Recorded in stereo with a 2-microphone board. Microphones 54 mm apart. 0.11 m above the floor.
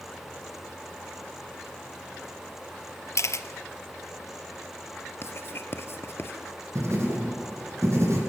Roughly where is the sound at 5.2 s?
Left.